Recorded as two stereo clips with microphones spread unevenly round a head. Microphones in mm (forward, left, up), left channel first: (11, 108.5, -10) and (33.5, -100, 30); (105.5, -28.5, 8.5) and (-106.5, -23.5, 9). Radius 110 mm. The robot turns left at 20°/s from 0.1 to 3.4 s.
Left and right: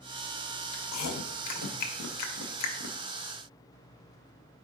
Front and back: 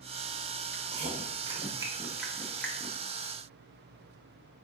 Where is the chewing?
120° left, 0.6 m; by 3.0 s 80° left, 0.6 m.